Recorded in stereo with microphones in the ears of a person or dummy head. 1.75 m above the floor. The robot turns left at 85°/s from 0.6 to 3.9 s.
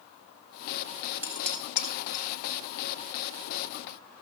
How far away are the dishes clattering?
About 1.8 m.